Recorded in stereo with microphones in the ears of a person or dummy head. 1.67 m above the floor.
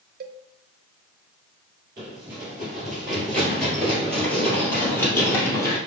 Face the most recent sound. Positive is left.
turn(degrees=15)  # may be behind; listen again after turning